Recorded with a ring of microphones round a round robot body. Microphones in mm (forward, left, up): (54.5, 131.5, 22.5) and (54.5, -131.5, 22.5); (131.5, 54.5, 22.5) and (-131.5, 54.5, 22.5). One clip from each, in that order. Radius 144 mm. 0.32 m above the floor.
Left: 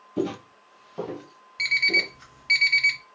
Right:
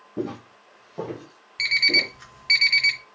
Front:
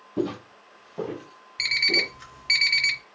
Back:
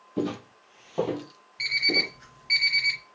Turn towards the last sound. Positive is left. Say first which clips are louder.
# right 2 dB, front 2 dB
turn(degrees=-15)